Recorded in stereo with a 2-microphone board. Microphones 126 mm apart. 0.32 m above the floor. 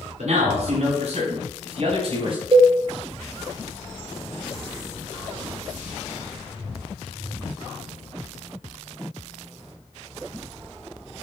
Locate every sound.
0.2 s a man speaking: 60° right (ahead or behind), 3.5 m; by 2.4 s 45° right (ahead or behind), 2.5 m
2.5 s a cowbell: 45° right (ahead or behind), 0.8 m